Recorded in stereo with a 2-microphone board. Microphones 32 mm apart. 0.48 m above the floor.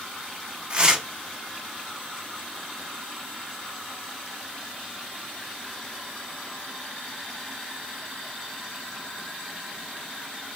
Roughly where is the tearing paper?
Right.